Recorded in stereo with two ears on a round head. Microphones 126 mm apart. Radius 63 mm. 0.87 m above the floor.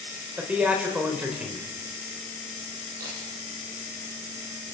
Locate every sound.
0.4 s a man speaking: 10° right (ahead or behind), 3.5 m
3.0 s a camera shutter: 65° right (ahead or behind), 8 m